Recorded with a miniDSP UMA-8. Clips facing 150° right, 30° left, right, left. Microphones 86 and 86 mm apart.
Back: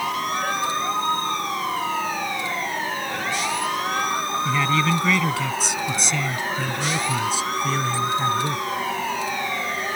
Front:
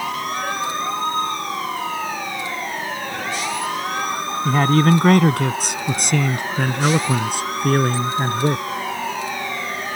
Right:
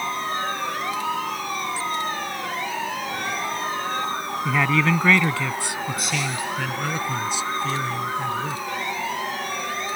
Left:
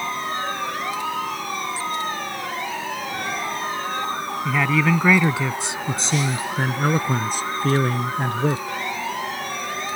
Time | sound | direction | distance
4.5 | a man speaking | straight ahead | ?